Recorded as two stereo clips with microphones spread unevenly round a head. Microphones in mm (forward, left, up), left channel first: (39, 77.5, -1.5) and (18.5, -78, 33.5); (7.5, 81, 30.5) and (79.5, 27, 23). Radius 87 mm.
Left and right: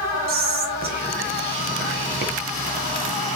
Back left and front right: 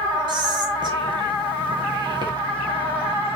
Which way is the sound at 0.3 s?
70° right.